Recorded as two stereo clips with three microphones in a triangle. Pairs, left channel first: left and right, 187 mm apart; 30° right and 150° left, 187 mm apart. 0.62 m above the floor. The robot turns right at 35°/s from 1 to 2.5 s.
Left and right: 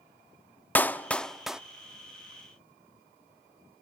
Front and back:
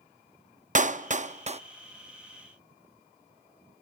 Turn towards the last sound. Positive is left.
turn(degrees=-140)